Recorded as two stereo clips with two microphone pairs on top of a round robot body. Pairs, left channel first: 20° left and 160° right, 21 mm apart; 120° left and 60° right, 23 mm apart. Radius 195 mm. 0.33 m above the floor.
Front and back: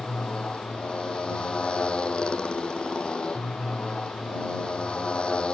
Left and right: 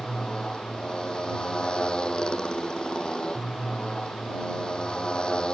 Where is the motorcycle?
65° left.